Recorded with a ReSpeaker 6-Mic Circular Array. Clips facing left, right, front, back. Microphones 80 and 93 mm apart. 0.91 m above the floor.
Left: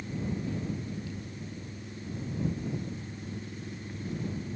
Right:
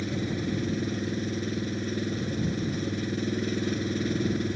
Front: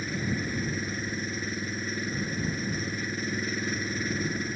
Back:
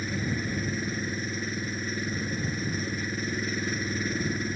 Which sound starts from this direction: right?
An engine running, at 0.0 s.